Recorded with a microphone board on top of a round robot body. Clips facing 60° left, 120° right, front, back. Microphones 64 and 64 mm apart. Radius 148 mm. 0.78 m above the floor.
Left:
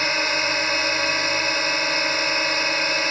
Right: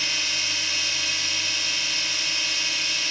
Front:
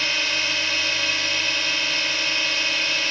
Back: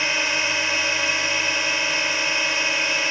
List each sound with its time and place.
0.0 s a drone: 110° left